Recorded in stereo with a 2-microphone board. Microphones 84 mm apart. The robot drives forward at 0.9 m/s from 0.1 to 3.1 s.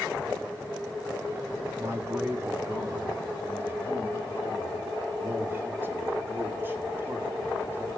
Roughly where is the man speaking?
Right.